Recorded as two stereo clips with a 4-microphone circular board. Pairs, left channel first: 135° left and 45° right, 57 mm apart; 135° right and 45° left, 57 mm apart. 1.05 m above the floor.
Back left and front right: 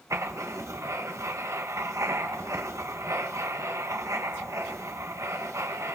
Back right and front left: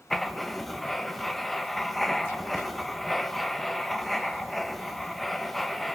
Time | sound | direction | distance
0.1 | writing | 50° right | 1.3 m